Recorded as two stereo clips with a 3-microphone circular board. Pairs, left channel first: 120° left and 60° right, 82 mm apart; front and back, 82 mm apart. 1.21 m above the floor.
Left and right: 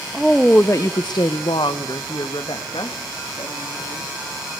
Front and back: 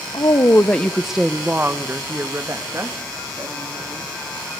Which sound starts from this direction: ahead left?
A woman speaking, at 0.1 s.